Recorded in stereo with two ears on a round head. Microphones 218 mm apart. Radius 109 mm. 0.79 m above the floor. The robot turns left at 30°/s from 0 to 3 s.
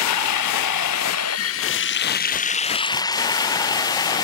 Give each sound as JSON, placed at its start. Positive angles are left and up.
{"t": 0.0, "sound": "running water", "azimuth_deg": 105}